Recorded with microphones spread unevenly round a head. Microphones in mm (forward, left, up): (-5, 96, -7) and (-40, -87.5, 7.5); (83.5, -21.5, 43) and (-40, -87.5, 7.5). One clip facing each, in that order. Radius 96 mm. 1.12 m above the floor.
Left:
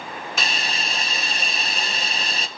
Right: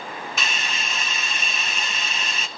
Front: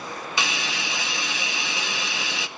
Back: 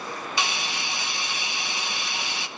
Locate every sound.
0.4 s a hiss: 25° left, 0.6 m